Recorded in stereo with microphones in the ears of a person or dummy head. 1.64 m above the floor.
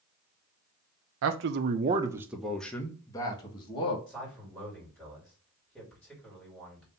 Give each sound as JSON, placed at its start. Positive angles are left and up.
{"t": 1.2, "sound": "a man speaking", "side_deg": -70, "distance_m": 0.7}
{"t": 4.1, "sound": "a man speaking", "side_deg": 5, "distance_m": 2.5}